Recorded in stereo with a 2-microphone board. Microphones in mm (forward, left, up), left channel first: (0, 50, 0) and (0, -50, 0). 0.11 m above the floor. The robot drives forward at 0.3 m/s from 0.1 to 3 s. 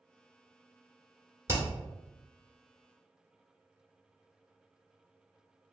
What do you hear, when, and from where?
1.5 s hammering: 25° right (ahead or behind), 1.3 m